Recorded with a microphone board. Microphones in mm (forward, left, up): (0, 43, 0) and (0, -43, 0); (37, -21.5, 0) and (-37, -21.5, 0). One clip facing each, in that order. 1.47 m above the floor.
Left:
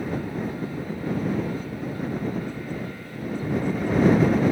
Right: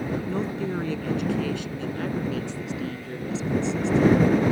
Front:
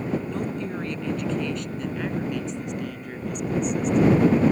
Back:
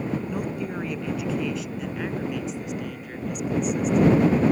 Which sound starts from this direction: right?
A woman speaking, at 0.3 s.